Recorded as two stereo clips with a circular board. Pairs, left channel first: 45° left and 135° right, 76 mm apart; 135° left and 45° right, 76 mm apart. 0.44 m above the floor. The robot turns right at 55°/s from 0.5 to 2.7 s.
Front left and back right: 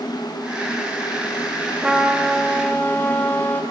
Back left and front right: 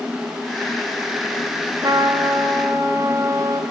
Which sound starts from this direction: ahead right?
A trumpet, at 1.8 s.